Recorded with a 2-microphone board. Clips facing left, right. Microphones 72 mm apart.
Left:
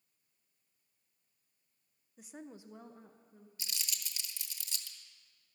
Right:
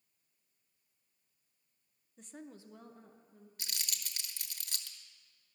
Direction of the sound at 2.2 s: 5° left (ahead or behind).